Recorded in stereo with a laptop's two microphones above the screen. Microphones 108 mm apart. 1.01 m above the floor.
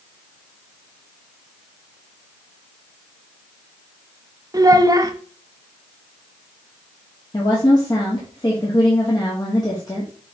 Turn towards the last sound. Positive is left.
turn(degrees=35)  # may be behind; listen again after turning